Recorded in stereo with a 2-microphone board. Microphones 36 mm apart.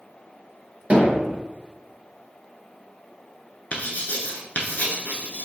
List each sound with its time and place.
0.9 s hammering: 45° right (ahead or behind), 1.3 m
3.7 s writing: 55° left (ahead or behind), 0.8 m